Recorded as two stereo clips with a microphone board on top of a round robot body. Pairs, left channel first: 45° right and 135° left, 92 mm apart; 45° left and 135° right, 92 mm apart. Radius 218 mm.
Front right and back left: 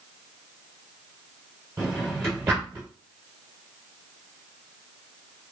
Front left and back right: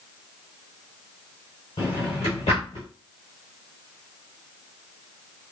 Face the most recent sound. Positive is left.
turn(degrees=70)